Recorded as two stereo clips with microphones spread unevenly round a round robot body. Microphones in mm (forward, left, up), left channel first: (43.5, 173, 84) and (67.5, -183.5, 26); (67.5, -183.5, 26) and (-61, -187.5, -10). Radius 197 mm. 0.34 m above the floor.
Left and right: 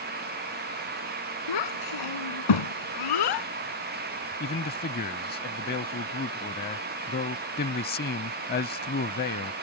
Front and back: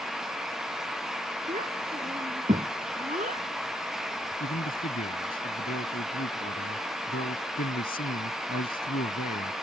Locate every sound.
1.5 s a child speaking: 120° left
4.4 s a man speaking: 25° left